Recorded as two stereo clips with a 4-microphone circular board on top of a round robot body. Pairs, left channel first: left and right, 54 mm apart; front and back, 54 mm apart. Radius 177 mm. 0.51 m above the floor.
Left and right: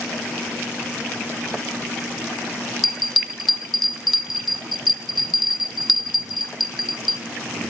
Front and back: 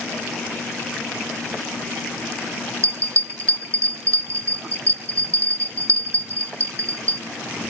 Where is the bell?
175° right, 1.0 m.